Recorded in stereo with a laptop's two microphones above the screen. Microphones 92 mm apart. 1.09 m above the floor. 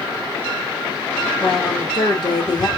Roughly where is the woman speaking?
Left.